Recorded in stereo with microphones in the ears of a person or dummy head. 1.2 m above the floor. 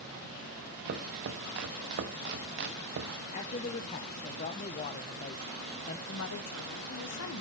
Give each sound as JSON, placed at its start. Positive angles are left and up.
{"t": 0.8, "sound": "chopping", "side_deg": -45, "distance_m": 0.7}
{"t": 3.3, "sound": "a man speaking", "side_deg": 30, "distance_m": 0.7}
{"t": 6.1, "sound": "a woman speaking", "side_deg": 70, "distance_m": 1.1}